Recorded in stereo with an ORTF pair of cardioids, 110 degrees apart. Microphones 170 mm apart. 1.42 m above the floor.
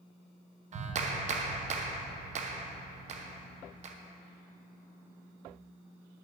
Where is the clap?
45° right, 0.7 m.